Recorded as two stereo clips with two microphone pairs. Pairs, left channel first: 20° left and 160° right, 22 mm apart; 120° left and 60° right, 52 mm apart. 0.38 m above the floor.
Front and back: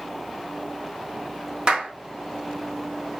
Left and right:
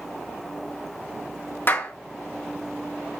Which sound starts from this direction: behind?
A clap, at 1.7 s.